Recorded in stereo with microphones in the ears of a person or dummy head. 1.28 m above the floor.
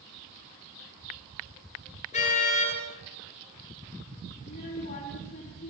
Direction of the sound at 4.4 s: 40° left (ahead or behind).